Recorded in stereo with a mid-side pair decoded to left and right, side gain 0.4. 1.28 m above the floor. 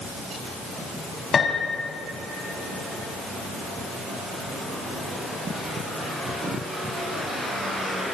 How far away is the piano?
About 4 m.